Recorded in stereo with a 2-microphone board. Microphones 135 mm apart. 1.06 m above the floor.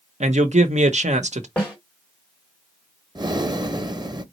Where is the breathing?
30° right (ahead or behind), 0.6 m.